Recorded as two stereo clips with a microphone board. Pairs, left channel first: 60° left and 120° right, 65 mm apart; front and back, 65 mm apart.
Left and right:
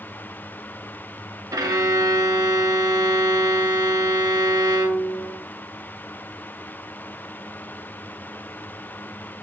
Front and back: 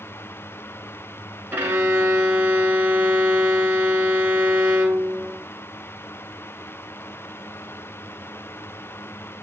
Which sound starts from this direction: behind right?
A violin, at 1.5 s.